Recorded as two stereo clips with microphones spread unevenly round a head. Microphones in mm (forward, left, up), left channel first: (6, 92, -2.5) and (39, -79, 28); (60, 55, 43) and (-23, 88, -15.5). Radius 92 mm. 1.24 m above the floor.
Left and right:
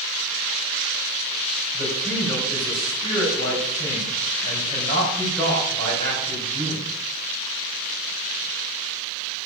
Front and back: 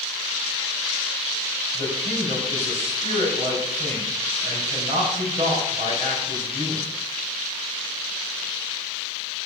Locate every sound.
1.7 s a man speaking: 170° left, 5 m